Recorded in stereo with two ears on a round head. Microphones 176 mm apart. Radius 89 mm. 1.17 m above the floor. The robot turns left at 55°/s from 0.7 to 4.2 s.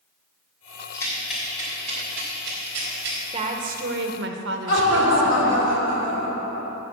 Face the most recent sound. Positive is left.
turn(degrees=65)  # may be behind; listen again after turning